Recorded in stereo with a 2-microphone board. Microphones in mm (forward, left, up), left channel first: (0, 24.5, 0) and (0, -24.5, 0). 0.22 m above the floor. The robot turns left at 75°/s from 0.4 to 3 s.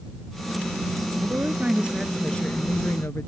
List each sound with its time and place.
1.2 s a woman speaking: 115° right; by 3.3 s 110° left